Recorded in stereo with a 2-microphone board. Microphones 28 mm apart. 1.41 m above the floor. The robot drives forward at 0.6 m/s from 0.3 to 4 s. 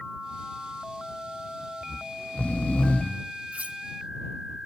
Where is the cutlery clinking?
60° right (ahead or behind), 1.6 m.